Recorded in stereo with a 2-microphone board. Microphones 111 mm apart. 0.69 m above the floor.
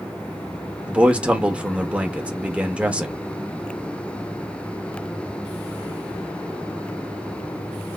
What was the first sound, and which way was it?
A man speaking, 10° right (ahead or behind).